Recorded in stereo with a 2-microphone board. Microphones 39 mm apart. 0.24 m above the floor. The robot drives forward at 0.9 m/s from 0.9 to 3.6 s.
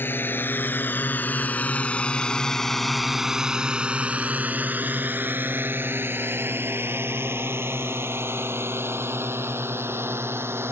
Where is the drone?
65° left (ahead or behind); by 10.7 s 80° right.